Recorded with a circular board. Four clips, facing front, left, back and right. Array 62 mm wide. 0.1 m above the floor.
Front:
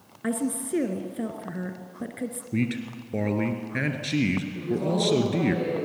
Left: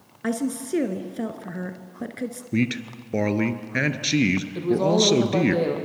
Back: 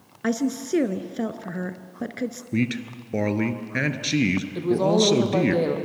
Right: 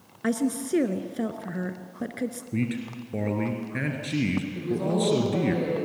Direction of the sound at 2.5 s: 115° left.